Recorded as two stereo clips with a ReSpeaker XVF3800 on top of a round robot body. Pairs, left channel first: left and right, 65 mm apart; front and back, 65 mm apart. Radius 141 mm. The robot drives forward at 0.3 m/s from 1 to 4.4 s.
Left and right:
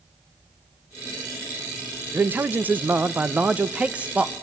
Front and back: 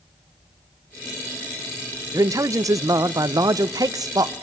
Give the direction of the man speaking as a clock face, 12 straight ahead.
5 o'clock.